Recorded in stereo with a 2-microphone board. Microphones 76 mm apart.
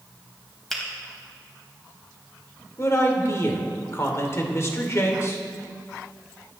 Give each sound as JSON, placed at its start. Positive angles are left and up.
{"t": 0.7, "sound": "a finger snap", "side_deg": 5, "distance_m": 3.5}
{"t": 2.8, "sound": "a man speaking", "side_deg": 40, "distance_m": 2.5}